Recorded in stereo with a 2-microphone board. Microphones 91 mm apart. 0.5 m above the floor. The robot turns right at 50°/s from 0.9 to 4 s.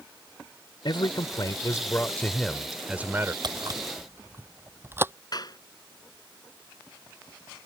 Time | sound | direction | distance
0.8 | a man speaking | 95° left | ?
3.4 | a camera shutter | 55° right (ahead or behind) | ?
5.3 | a clap | 50° left (ahead or behind) | ?